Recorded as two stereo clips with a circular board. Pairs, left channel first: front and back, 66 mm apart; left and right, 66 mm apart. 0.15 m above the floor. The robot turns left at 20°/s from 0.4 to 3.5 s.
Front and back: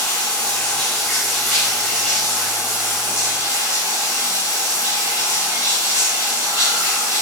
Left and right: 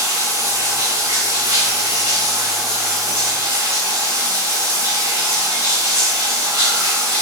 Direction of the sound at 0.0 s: 75° right.